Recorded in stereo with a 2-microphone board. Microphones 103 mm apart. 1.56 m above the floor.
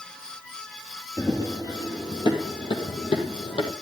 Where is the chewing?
I don't hear chewing.